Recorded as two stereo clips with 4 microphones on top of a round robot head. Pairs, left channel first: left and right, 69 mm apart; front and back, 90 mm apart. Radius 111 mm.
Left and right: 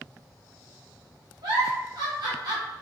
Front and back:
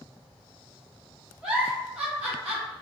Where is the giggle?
95° right, 0.9 m.